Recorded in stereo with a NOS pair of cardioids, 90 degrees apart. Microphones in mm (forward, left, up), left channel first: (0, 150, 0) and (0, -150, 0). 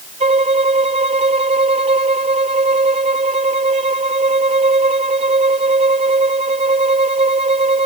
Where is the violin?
20° right.